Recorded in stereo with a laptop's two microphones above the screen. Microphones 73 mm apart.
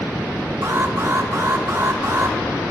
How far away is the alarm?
About 2 m.